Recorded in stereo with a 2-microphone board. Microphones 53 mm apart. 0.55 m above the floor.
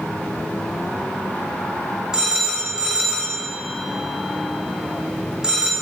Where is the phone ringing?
15° right (ahead or behind), 1.3 m.